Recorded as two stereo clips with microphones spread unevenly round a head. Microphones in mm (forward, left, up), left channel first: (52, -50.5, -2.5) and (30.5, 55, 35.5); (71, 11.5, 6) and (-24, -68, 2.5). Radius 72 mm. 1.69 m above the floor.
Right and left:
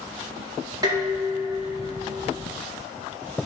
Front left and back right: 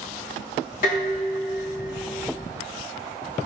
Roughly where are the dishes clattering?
Ahead left.